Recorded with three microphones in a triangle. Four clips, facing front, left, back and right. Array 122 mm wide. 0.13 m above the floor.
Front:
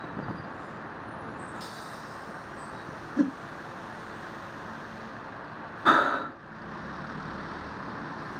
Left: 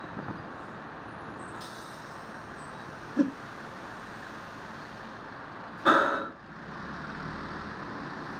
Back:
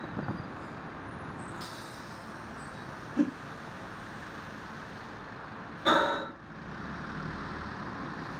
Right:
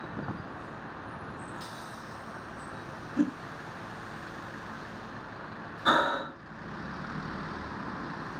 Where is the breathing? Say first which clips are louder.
Left 2 dB, front 3 dB; 20° left, 1.4 m.